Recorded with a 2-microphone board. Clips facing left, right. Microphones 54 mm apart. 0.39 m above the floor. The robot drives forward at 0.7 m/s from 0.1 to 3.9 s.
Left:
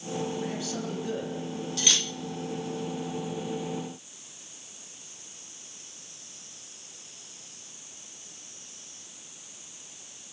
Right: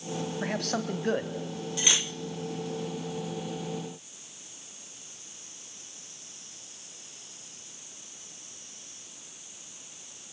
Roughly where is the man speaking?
Right.